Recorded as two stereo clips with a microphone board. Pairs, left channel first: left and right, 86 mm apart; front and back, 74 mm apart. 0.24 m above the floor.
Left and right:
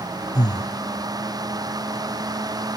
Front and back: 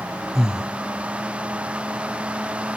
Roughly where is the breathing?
Left.